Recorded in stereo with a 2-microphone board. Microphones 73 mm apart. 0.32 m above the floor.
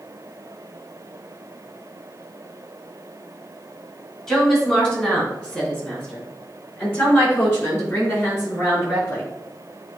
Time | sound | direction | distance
4.3 | a woman speaking | 10° left (ahead or behind) | 3 m